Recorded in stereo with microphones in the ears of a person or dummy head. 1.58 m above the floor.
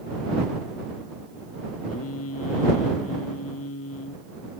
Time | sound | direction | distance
1.9 | singing | 85° left | ?